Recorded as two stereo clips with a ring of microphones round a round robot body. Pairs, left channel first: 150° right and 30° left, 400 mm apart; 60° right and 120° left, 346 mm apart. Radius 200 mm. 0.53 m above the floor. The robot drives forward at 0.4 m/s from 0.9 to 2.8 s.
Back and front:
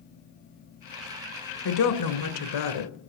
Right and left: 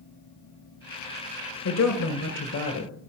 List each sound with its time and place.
1.6 s a woman speaking: 110° right, 1.6 m; by 2.9 s 125° right, 1.8 m